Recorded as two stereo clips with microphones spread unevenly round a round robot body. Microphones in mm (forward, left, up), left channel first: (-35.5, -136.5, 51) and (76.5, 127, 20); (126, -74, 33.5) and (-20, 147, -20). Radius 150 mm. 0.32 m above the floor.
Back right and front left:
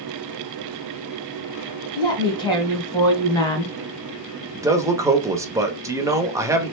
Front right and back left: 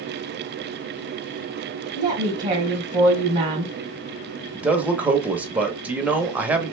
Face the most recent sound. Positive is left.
turn(degrees=95)